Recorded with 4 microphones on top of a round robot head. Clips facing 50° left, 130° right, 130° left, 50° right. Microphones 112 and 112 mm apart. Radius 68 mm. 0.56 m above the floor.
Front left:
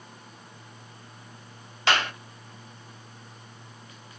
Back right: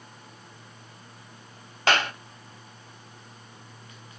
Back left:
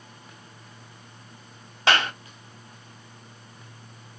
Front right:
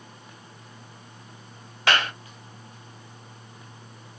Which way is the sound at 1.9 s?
170° right.